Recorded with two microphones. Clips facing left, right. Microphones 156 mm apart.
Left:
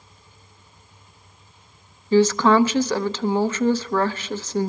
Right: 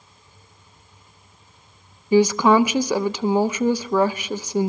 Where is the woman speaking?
15° right (ahead or behind), 0.6 m.